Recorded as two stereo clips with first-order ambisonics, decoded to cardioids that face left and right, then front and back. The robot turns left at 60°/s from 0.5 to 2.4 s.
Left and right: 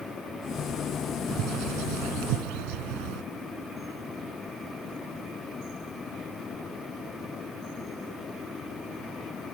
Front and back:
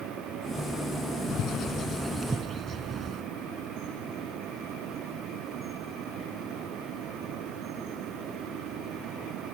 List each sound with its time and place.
1.3 s a bird: 45° right; by 3.2 s 110° right